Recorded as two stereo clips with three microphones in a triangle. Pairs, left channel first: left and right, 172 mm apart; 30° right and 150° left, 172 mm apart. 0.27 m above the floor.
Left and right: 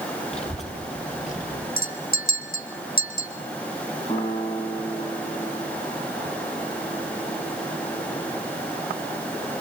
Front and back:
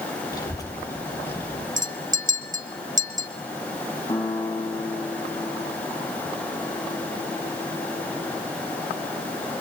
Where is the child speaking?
40° left, 5 m; by 1.7 s 50° left, 3.5 m.